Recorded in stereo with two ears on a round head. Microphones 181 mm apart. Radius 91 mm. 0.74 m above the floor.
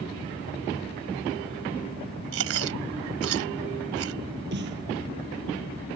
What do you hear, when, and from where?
2.3 s chewing: 70° right (ahead or behind)
4.5 s a snare drum: 55° right (ahead or behind)